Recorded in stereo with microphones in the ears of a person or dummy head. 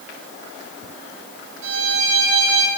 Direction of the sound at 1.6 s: 75° right (ahead or behind).